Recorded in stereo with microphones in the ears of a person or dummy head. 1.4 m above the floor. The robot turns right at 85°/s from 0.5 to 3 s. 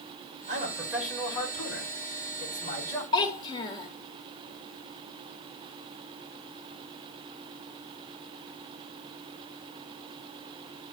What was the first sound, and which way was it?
A man speaking, 50° right.